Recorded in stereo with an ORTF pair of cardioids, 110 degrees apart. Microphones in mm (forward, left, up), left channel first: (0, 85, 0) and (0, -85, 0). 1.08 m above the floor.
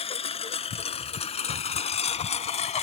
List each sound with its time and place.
0.0 s a lawn mower: 35° left; by 2.9 s 45° left